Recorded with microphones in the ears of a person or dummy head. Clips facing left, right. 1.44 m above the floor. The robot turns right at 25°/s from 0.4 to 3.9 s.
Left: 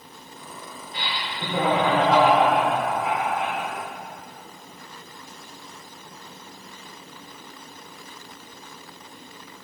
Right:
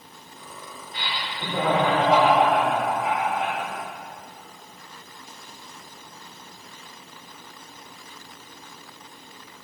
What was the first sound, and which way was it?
Laughter, 155° left.